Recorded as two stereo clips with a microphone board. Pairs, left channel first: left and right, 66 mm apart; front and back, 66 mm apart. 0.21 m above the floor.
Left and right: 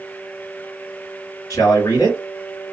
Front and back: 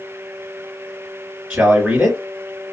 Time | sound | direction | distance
1.5 | a man speaking | 110° left | 3 m